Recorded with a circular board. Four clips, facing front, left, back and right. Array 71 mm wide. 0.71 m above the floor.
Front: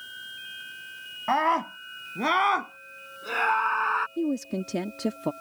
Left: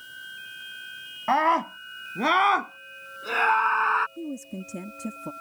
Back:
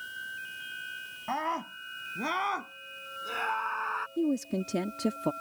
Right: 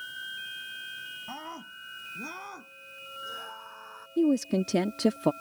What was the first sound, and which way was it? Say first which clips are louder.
A scream: left 24 dB, front 9 dB; 60° left.